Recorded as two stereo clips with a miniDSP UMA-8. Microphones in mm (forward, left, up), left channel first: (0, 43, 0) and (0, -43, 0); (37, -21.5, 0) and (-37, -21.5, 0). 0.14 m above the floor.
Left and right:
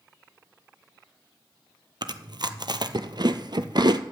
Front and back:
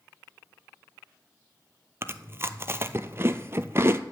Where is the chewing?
120° right, 0.7 m.